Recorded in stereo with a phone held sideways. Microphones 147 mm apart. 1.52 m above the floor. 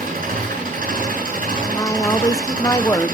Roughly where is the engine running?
Right.